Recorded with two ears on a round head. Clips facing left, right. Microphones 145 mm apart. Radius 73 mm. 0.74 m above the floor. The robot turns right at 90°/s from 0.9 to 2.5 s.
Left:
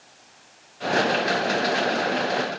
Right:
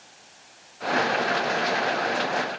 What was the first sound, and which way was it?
Only background noise.